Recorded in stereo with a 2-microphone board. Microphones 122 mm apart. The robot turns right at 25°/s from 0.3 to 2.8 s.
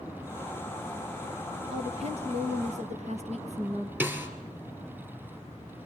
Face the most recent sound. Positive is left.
turn(degrees=-15)  # may be behind; listen again after turning